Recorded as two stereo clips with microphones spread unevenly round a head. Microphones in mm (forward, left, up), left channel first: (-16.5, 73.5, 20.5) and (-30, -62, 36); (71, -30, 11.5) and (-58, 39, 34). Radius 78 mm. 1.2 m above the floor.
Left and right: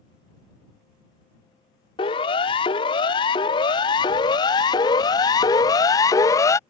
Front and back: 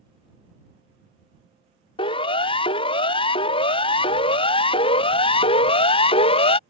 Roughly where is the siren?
Ahead left.